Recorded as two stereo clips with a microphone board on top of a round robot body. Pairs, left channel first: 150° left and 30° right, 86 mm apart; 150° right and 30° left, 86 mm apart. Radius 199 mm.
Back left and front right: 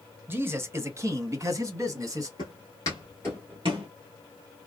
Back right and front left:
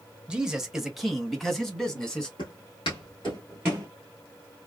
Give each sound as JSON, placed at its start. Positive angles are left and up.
{"t": 0.3, "sound": "a man speaking", "azimuth_deg": -30, "distance_m": 1.0}
{"t": 2.4, "sound": "footsteps", "azimuth_deg": -170, "distance_m": 0.9}